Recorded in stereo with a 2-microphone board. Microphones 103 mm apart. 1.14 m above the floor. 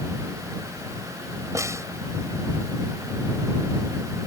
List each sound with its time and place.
1.6 s a snare drum: 30° right (ahead or behind)